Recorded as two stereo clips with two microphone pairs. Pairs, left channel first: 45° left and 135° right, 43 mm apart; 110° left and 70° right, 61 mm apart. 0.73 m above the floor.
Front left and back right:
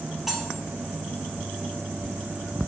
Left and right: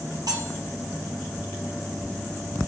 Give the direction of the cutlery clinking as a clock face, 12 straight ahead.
2 o'clock.